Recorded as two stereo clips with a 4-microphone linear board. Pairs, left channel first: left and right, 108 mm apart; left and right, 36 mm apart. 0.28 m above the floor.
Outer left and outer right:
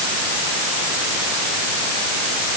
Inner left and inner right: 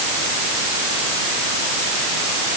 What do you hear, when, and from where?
Only background noise.